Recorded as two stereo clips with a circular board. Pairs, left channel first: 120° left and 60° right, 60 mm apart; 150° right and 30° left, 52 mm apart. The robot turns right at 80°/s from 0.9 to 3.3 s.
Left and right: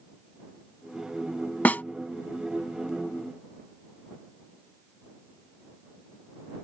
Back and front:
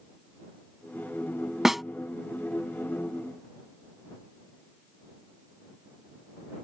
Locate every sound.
1.6 s a snare drum: 105° left; by 1.8 s 120° left